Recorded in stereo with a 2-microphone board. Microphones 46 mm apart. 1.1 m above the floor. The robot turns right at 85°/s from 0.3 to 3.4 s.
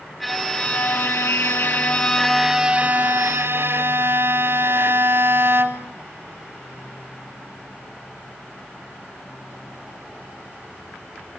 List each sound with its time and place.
0.2 s a violin: straight ahead, 1.5 m; by 6.0 s 95° right, 1.5 m